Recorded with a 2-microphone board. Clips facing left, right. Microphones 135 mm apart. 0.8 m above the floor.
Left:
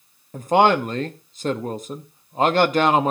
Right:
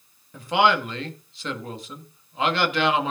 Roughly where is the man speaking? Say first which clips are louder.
Left 4 dB; left.